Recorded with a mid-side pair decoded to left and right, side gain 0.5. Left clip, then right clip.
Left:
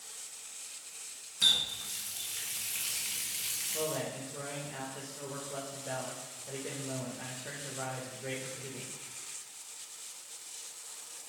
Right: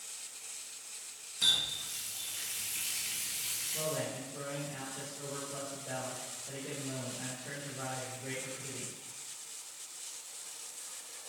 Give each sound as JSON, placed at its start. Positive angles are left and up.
{"t": 1.4, "sound": "a running tap", "azimuth_deg": 25, "distance_m": 1.3}
{"t": 3.7, "sound": "a man speaking", "azimuth_deg": 35, "distance_m": 2.0}